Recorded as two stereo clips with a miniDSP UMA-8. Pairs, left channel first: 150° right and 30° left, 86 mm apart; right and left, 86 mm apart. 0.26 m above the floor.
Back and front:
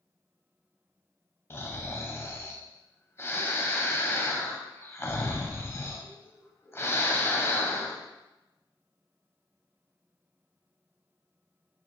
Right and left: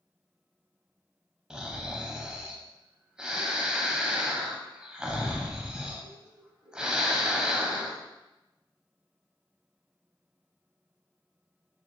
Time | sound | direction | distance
1.5 | snoring | 165° left | 0.6 m